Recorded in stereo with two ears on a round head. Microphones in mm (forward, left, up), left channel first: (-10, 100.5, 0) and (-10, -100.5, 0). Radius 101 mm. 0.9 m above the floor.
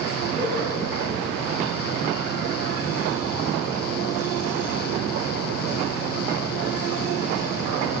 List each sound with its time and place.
0.3 s a whoosh: 25° left (ahead or behind), 9.5 m